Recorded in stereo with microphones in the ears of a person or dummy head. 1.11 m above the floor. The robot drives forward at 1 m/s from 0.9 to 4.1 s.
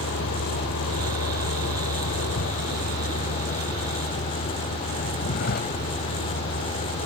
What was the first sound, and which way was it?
A vehicle, 90° left.